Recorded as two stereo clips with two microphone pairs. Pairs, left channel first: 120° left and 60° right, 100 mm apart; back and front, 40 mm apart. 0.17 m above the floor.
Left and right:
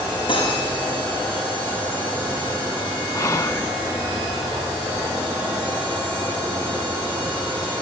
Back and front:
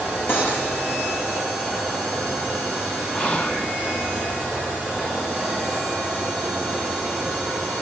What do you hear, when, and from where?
0.3 s cutlery clinking: 150° left, 9.5 m
3.1 s whispering: 140° left, 1.3 m